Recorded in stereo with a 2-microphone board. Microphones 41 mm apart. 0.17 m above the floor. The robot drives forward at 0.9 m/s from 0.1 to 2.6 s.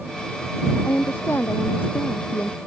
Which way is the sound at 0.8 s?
60° left (ahead or behind).